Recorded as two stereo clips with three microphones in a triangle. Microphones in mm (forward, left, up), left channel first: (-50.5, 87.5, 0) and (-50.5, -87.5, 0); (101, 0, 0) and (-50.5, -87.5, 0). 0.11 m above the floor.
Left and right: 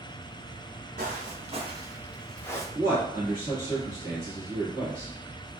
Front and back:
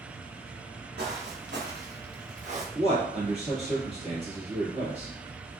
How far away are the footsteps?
About 1.2 m.